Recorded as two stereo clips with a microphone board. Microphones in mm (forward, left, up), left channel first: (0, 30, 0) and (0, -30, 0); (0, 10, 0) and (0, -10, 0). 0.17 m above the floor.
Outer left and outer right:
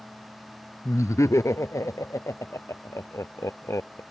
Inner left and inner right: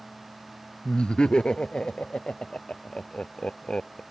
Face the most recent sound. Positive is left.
turn(degrees=60)  # may be behind; listen again after turning